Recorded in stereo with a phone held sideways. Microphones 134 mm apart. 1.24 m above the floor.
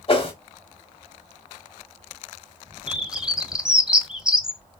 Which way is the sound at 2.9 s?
5° right (ahead or behind).